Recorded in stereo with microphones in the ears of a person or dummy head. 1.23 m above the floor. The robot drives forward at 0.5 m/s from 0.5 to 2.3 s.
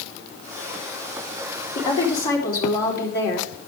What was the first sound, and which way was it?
A woman speaking, 25° left (ahead or behind).